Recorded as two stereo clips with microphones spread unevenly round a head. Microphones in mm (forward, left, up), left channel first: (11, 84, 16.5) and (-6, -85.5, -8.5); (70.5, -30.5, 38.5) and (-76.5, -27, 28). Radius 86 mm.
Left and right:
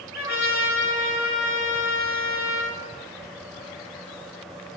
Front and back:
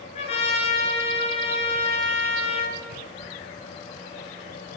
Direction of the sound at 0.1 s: 55° left.